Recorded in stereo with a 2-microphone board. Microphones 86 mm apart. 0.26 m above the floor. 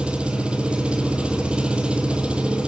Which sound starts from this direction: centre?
An engine running, at 0.0 s.